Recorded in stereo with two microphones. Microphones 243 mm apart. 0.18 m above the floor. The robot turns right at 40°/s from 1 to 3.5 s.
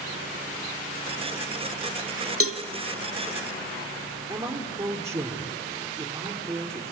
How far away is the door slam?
No door slam in this recording.